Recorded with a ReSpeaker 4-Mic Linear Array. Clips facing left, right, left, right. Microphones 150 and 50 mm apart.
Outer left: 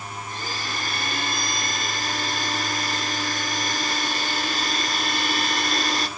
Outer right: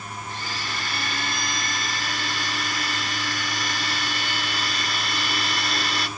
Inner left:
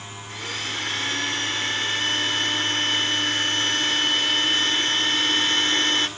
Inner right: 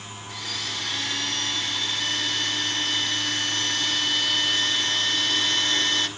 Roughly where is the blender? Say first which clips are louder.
Outer left 1 dB, inner left 3 dB; left.